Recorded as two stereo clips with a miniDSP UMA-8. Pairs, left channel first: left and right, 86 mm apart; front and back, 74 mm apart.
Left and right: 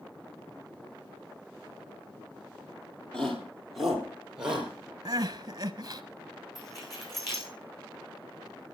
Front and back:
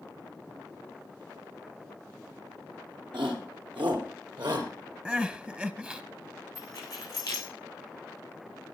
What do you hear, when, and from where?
3.1 s a shout: 170° left, 5 m; by 4.7 s 165° right, 4 m
5.0 s crying: 115° right, 1.0 m
6.5 s keys jangling: 45° left, 7 m